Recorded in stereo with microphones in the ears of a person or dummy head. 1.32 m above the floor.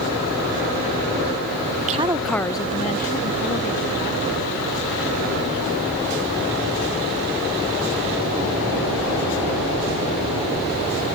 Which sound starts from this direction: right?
A woman speaking, at 1.8 s.